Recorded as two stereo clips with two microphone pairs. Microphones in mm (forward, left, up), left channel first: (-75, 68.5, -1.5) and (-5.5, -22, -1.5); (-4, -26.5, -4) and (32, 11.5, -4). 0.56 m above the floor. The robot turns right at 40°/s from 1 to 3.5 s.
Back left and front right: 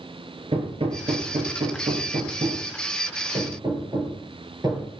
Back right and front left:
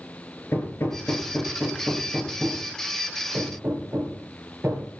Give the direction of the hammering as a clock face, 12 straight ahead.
3 o'clock.